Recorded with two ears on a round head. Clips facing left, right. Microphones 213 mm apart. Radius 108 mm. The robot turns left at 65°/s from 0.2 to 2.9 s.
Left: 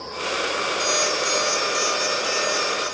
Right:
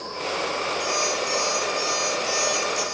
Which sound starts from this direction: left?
An alarm clock, at 0.8 s.